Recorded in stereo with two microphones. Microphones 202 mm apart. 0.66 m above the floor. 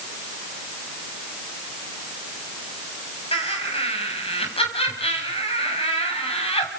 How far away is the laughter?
About 5 m.